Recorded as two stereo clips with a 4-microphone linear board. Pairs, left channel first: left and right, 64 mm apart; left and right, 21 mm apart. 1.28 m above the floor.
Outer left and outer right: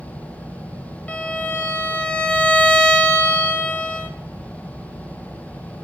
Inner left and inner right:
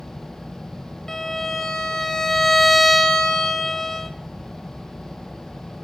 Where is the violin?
20° left (ahead or behind), 0.9 m.